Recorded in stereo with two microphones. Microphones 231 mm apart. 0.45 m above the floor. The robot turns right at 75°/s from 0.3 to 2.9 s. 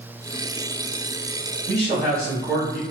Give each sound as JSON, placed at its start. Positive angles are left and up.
{"t": 1.7, "sound": "a man speaking", "azimuth_deg": -60, "distance_m": 1.5}